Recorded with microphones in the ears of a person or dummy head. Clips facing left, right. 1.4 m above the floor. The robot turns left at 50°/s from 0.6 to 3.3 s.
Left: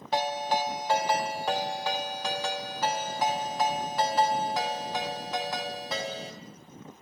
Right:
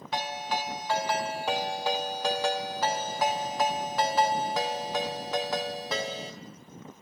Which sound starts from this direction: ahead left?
A ringtone, at 0.1 s.